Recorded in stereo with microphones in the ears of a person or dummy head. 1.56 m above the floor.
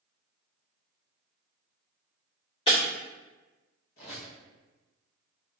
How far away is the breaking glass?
About 1.7 m.